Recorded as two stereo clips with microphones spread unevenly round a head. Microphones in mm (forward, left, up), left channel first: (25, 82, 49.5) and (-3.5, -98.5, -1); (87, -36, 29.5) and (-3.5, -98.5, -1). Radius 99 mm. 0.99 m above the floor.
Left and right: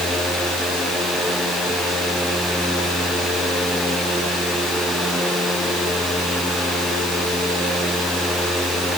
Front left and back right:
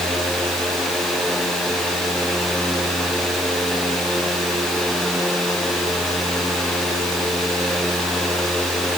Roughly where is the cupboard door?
No cupboard door in this recording.